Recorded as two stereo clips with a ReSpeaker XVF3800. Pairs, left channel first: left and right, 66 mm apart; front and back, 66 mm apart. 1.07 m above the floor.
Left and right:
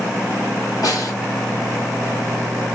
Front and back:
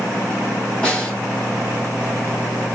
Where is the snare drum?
65° left, 2 m.